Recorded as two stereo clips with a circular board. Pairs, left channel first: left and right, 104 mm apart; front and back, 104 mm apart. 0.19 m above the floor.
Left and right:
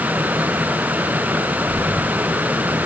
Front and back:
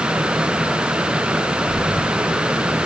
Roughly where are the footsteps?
Behind.